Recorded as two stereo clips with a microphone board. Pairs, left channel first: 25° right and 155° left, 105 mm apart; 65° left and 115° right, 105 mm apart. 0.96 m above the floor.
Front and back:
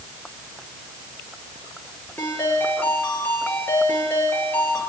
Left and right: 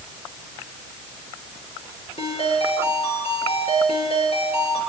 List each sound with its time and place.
2.2 s a ringtone: 50° left, 9.5 m